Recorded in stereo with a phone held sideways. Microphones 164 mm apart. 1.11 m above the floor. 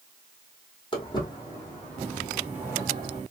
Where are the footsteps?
30° left (ahead or behind), 1.9 m; by 3.2 s 35° right (ahead or behind), 1.3 m.